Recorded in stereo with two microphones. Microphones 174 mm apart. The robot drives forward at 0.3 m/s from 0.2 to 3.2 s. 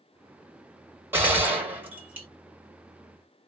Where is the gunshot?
10° right (ahead or behind), 1.4 m.